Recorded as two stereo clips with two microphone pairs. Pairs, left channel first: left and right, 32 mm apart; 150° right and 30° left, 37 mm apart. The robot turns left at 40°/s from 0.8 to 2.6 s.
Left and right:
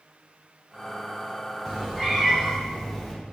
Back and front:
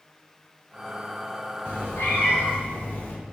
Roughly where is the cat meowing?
Behind right.